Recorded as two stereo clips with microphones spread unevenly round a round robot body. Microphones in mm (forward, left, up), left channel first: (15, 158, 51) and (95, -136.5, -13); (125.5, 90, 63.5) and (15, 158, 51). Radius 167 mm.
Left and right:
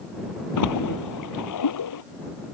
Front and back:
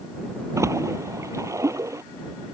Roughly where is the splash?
Left.